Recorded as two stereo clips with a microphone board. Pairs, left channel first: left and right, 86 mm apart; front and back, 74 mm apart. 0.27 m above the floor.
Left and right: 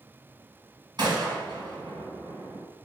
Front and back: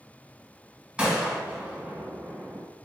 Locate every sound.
1.0 s a gunshot: 105° right, 1.2 m